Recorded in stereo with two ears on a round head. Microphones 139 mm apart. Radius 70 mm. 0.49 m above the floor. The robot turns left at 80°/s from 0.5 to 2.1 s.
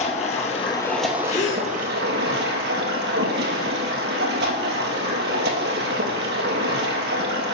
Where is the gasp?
110° left, 1.4 m; by 1.7 s 75° left, 1.4 m.